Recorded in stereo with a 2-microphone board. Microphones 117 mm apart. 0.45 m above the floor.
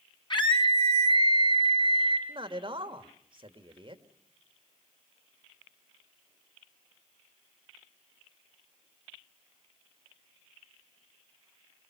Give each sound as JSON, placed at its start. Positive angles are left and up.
{"t": 0.3, "sound": "a scream", "side_deg": 40, "distance_m": 3.5}
{"t": 2.3, "sound": "a man speaking", "side_deg": -45, "distance_m": 1.8}